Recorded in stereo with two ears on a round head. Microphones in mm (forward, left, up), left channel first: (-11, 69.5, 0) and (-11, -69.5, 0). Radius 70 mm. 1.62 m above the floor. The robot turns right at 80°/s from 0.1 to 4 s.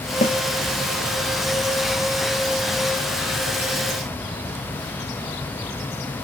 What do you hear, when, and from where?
0.2 s a snare drum: 45° left (ahead or behind), 0.8 m; by 0.4 s 40° left (ahead or behind), 0.8 m